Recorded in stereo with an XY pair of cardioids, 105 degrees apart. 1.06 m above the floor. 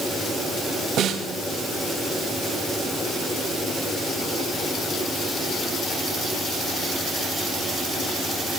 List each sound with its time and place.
1.0 s a snare drum: 65° right, 4.5 m